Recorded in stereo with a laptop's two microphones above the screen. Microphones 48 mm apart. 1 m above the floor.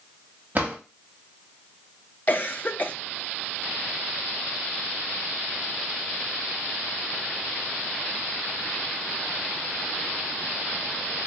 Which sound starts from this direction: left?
A cough, at 2.3 s.